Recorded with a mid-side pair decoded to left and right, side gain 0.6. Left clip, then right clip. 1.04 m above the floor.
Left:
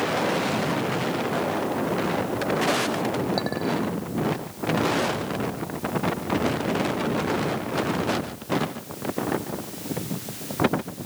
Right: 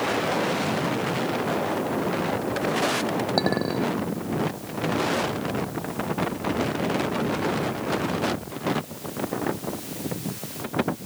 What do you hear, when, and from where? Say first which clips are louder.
3.4 s a clink: right 2 dB; 25° right